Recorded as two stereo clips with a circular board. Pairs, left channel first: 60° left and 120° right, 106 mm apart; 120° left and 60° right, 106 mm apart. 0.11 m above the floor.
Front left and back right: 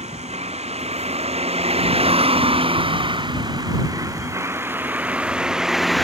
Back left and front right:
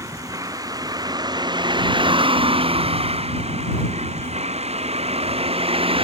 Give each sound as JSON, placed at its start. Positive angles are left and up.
{"t": 0.0, "sound": "a vehicle", "azimuth_deg": -120}